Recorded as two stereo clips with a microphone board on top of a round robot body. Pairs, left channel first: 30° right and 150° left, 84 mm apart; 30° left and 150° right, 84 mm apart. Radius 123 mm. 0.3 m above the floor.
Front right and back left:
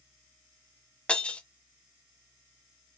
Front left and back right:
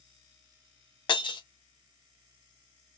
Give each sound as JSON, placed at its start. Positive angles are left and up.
{"t": 1.1, "sound": "breaking glass", "azimuth_deg": 45, "distance_m": 1.1}